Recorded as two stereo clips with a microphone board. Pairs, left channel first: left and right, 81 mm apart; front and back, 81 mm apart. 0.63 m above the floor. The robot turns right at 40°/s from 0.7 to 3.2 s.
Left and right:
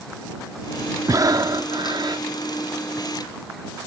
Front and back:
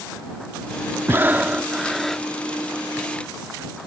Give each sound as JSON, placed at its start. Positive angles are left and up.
{"t": 1.1, "sound": "breathing", "azimuth_deg": -125}